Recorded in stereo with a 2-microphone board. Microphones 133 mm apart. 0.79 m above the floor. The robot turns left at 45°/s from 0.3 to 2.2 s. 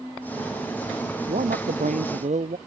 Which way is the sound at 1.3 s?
75° right.